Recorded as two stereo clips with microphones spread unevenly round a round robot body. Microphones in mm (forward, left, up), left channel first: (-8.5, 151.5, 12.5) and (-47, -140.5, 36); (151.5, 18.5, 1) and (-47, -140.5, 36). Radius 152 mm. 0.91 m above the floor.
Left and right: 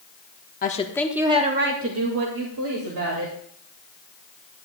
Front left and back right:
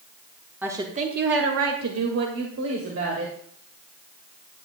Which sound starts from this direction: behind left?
A woman speaking, at 0.6 s.